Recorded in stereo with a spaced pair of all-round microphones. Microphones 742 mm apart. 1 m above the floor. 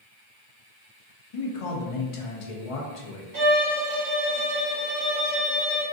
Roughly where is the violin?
Right.